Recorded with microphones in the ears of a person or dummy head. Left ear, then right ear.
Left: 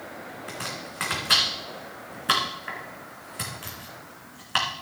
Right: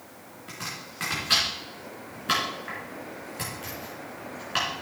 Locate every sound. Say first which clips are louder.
0.5 s chopping: left 1 dB; 30° left (ahead or behind), 2.5 m